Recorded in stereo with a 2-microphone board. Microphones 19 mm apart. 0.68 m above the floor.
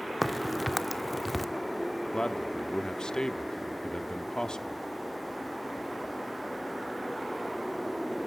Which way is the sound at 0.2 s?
Centre (ahead or behind).